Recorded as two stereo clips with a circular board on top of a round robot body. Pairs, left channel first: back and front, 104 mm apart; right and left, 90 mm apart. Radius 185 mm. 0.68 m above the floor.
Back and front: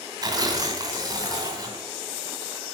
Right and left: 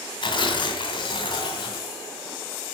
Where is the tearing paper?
55° right, 2.5 m.